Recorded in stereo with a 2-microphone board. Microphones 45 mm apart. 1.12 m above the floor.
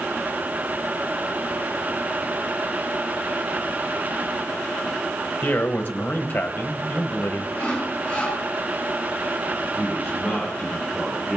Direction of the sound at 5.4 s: 35° left (ahead or behind).